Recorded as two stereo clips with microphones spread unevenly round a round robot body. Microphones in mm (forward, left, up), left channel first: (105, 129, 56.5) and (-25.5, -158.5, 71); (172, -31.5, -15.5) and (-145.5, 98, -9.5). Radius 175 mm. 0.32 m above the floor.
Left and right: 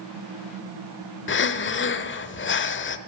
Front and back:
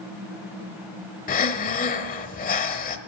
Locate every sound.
1.3 s breathing: 35° left, 0.9 m